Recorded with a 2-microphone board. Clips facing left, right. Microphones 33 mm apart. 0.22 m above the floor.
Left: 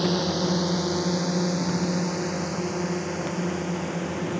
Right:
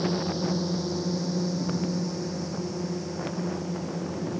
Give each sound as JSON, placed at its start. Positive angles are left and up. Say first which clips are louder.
{"t": 0.0, "sound": "a drone", "louder": "left 3 dB", "side_deg": 70}